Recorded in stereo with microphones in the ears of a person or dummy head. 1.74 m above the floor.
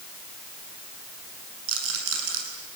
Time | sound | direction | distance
1.7 | a rattle | 75° right (ahead or behind) | 8 m